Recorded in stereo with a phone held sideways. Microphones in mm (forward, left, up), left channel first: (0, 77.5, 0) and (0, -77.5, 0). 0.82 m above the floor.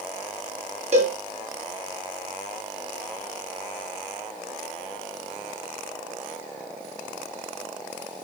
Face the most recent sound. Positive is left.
turn(degrees=-50)  # may be behind; listen again after turning